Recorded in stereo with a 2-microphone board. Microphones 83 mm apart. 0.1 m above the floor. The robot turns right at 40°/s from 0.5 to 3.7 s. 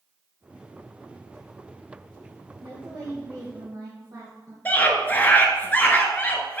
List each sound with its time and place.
2.6 s a woman speaking: 120° right, 3 m; by 4.5 s 75° right, 3 m
4.7 s a scream: 20° left (ahead or behind), 1.2 m